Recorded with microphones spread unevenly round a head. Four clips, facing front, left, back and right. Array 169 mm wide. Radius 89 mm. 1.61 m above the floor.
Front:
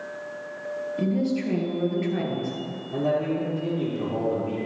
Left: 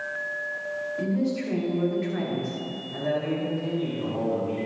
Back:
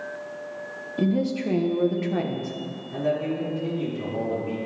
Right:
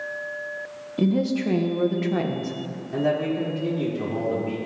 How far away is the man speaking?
About 4 m.